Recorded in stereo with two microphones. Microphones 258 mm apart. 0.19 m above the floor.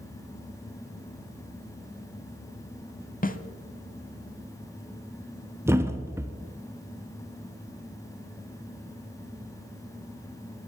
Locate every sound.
3.2 s a snare drum: 35° left (ahead or behind), 0.7 m
5.7 s a thud: 10° right (ahead or behind), 0.8 m